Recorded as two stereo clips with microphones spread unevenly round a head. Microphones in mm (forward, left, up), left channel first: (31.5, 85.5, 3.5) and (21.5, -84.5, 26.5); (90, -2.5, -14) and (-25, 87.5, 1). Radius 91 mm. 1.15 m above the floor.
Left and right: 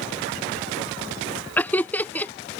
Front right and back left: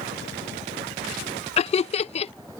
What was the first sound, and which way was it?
Laughter, 10° left.